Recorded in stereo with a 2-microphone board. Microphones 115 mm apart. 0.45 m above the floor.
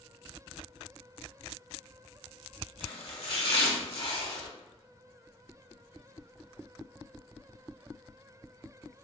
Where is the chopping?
55° left (ahead or behind), 1.0 m.